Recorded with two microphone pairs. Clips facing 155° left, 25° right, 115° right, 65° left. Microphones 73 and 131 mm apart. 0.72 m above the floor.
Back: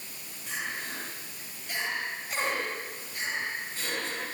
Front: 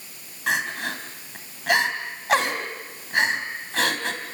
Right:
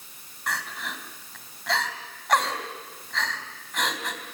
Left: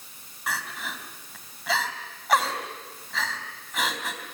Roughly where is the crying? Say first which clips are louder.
Front 10 dB, even; ahead right.